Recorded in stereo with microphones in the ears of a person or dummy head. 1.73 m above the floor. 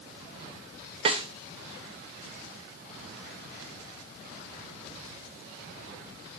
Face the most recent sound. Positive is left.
turn(degrees=-30)  # may be behind; listen again after turning